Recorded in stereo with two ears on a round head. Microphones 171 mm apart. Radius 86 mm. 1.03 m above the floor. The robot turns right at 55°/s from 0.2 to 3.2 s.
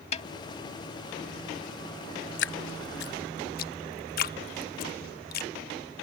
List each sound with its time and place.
0.1 s a snare drum: 35° left (ahead or behind); by 0.3 s 30° left (ahead or behind)
2.4 s dripping: 65° left (ahead or behind); by 5.5 s 50° left (ahead or behind)